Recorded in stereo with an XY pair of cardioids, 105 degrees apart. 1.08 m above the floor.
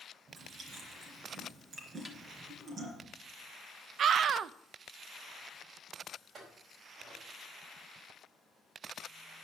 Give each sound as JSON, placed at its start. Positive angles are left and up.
{"t": 0.3, "sound": "chewing", "azimuth_deg": -50, "distance_m": 3.0}
{"t": 2.0, "sound": "a snare drum", "azimuth_deg": -5, "distance_m": 1.4}
{"t": 4.0, "sound": "a scream", "azimuth_deg": -60, "distance_m": 0.5}
{"t": 6.3, "sound": "a clink", "azimuth_deg": -50, "distance_m": 4.5}